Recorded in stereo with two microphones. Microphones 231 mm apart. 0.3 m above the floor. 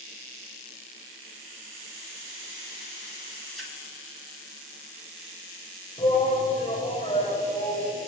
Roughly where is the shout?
Left.